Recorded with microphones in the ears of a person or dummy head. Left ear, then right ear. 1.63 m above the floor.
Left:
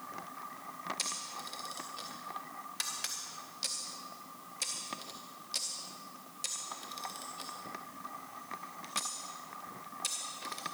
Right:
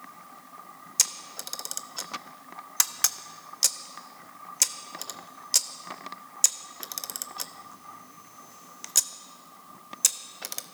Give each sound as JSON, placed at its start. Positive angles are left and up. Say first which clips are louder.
{"t": 1.0, "sound": "a camera shutter", "louder": "right 15 dB", "side_deg": -45, "distance_m": 0.5}